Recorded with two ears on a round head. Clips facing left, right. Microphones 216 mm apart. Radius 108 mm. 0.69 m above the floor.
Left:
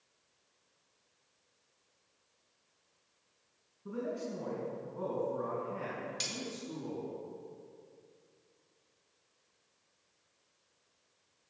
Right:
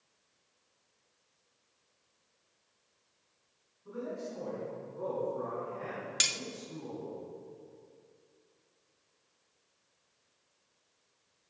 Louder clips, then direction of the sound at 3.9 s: Left 2 dB; 55° left (ahead or behind).